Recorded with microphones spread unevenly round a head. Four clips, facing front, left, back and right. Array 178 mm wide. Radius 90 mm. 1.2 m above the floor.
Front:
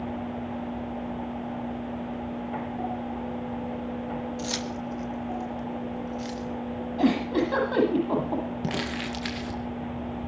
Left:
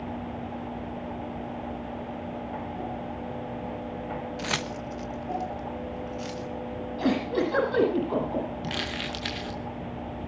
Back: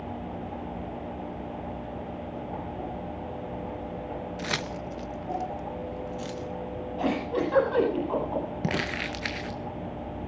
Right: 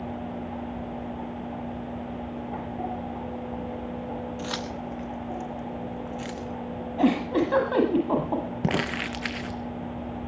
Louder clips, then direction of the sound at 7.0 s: Right 3 dB, front 4 dB; 60° right.